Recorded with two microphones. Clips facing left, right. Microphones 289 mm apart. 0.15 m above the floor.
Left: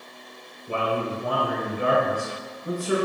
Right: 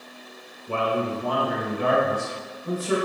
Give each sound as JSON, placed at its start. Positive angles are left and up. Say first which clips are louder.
{"t": 0.7, "sound": "a man speaking", "louder": "right 1 dB", "side_deg": 15, "distance_m": 1.3}